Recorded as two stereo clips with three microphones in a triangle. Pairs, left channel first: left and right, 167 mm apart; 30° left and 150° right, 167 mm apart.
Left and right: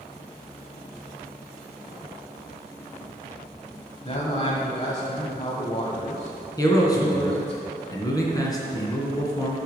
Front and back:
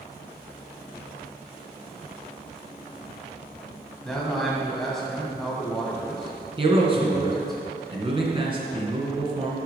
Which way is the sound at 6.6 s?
155° left.